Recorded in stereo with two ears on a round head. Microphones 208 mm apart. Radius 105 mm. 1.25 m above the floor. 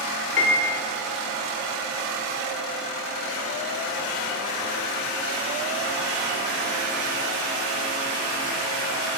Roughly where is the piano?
Left.